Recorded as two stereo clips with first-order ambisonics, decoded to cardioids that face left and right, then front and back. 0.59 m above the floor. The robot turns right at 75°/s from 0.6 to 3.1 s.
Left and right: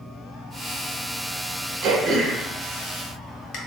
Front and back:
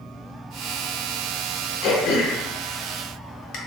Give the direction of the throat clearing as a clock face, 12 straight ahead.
2 o'clock.